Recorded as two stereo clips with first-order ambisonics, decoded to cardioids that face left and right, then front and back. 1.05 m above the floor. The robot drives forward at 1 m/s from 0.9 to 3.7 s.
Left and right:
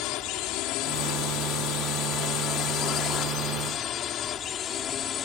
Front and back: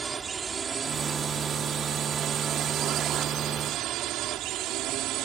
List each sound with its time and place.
0.0 s a drone: 110° left; by 5.2 s 145° left